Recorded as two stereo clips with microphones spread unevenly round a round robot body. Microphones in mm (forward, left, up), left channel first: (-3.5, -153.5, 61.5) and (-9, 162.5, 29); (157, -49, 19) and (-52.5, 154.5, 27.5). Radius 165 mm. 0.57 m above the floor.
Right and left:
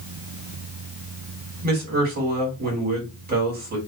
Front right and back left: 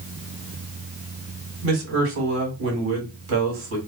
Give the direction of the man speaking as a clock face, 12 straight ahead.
8 o'clock.